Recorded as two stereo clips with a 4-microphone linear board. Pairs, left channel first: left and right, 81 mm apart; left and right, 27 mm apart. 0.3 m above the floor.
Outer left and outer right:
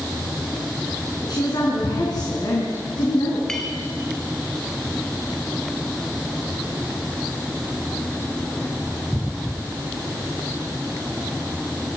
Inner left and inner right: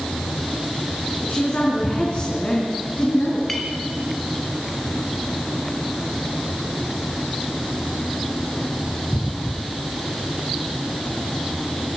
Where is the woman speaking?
55° left (ahead or behind), 4 m.